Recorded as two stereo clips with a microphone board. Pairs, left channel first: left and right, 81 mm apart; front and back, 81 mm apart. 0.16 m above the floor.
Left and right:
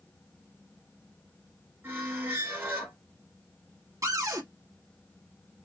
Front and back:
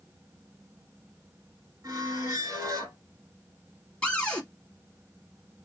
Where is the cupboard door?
70° right, 1.1 m.